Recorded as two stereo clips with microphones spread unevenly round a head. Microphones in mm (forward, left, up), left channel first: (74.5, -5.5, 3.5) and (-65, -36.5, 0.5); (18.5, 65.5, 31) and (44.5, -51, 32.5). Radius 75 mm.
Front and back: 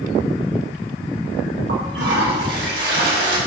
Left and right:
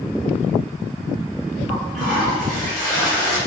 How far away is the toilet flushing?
About 5 m.